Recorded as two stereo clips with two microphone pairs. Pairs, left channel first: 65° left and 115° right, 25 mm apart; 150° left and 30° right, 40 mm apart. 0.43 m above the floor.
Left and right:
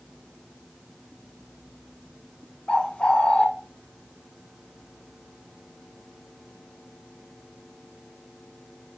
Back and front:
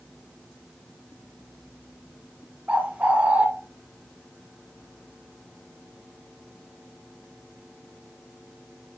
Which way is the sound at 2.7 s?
20° left.